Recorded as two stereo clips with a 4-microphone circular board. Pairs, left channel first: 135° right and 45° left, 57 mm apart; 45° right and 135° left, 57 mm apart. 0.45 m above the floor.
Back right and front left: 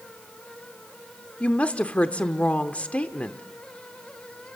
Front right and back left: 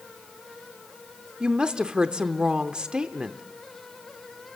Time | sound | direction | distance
1.4 | a woman speaking | 170° right | 0.8 m